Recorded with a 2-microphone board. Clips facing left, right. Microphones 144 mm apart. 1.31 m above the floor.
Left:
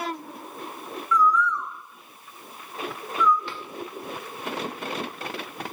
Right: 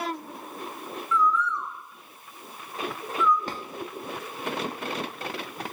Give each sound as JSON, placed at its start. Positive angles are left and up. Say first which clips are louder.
{"t": 1.1, "sound": "a bird", "louder": "left 3 dB", "side_deg": -25, "distance_m": 4.5}
{"t": 3.5, "sound": "a drawer", "louder": "right 2 dB", "side_deg": -40, "distance_m": 1.2}